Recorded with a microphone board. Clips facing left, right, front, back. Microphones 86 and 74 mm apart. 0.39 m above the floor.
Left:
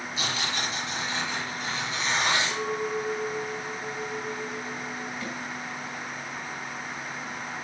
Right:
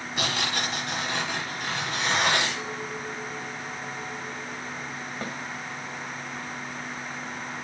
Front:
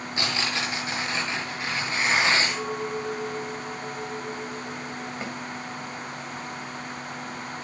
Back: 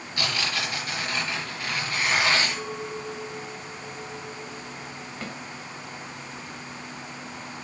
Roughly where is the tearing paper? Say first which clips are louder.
Right 3 dB, even; ahead right.